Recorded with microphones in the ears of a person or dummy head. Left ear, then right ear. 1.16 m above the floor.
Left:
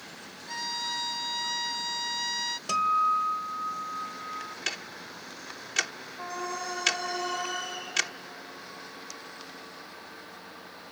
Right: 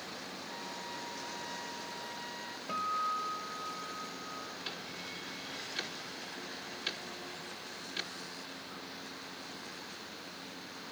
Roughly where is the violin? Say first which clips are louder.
Left 14 dB; left.